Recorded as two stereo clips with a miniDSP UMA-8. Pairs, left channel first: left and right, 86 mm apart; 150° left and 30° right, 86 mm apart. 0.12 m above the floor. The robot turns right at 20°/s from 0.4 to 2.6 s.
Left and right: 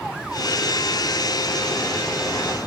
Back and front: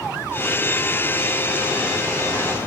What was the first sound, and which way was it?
Only background noise.